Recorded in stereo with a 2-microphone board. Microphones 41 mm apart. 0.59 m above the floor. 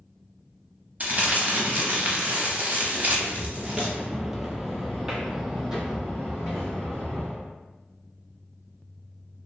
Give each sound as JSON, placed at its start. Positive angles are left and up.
{"t": 1.0, "sound": "crumpling", "side_deg": -45, "distance_m": 0.6}
{"t": 3.1, "sound": "footsteps", "side_deg": 5, "distance_m": 0.7}